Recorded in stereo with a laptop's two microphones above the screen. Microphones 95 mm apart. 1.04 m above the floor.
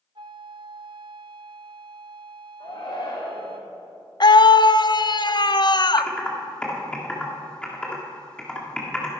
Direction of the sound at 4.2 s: 50° left (ahead or behind).